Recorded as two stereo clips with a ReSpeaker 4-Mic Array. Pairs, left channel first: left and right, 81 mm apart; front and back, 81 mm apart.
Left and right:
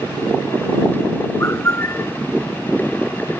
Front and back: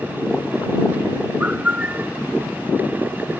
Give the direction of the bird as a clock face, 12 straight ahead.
8 o'clock.